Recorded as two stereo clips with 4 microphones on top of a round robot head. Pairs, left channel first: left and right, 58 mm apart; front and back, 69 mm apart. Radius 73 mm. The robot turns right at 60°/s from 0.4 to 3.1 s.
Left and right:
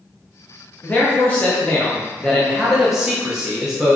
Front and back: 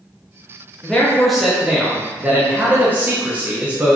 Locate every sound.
0.8 s a man speaking: 70° left, 0.8 m; by 4.0 s 155° right, 0.8 m